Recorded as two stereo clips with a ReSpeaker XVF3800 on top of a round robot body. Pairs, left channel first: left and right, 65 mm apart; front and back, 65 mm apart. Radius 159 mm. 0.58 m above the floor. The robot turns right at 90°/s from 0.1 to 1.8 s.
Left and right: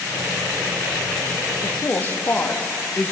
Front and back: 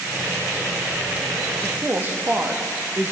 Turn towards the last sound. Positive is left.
turn(degrees=135)